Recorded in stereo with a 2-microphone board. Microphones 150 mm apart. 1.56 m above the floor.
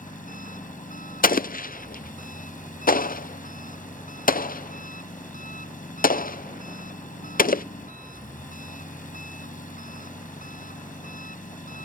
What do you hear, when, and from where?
0.0 s an engine running: 60° left (ahead or behind)
1.2 s an explosion: 70° left (ahead or behind)